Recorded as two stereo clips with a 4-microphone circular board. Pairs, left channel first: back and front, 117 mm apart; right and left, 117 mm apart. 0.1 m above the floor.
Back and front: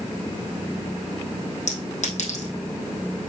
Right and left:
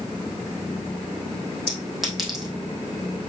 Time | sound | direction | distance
1.7 | a clink | straight behind | 3.5 m